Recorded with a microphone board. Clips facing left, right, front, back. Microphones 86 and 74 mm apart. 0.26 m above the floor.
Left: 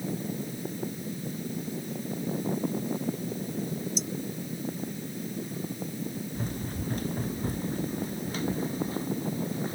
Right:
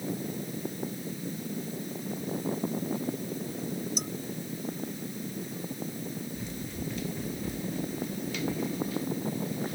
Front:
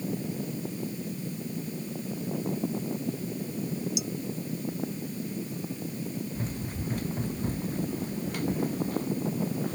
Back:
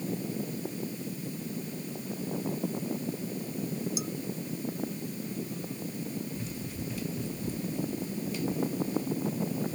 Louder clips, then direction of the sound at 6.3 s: Left 3 dB, front 2 dB; 50° left.